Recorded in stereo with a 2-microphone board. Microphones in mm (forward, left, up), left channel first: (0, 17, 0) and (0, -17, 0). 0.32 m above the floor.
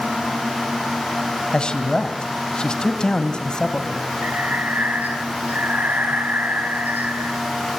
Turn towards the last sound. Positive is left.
turn(degrees=-60)  # may be behind; listen again after turning